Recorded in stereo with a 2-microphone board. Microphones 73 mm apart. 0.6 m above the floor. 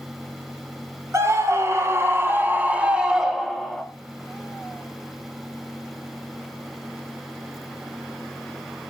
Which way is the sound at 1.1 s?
45° right (ahead or behind).